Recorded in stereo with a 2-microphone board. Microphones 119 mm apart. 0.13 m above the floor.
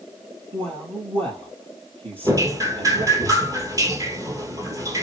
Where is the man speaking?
55° right (ahead or behind), 3.5 m.